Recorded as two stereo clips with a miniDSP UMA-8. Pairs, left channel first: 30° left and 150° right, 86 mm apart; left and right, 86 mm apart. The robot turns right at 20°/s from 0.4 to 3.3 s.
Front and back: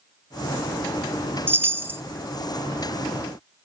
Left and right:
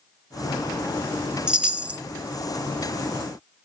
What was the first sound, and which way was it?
A chime, 155° right.